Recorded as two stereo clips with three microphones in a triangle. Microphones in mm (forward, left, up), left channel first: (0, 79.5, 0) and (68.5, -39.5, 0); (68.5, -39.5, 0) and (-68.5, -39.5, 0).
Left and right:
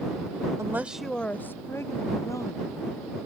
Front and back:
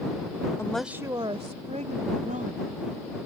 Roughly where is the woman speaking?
Ahead right.